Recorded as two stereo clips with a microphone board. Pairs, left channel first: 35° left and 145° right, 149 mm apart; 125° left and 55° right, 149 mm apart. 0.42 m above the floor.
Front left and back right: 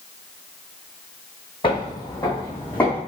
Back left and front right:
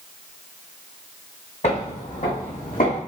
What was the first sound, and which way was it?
Footsteps, 85° left.